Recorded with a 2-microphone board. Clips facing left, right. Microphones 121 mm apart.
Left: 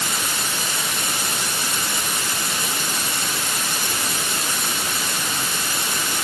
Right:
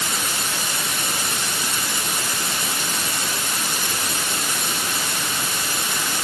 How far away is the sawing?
No sawing in this recording.